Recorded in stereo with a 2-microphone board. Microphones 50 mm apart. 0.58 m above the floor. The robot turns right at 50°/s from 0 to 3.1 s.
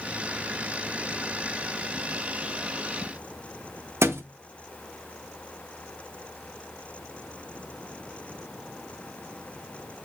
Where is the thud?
60° right (ahead or behind), 0.6 m.